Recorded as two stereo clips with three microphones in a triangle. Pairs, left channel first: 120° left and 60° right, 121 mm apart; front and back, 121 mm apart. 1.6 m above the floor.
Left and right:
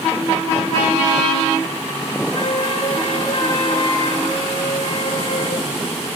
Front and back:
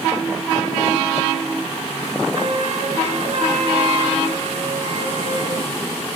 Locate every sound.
2.3 s a flute: 155° left, 4 m